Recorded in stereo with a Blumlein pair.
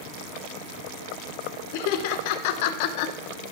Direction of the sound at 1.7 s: 50° left.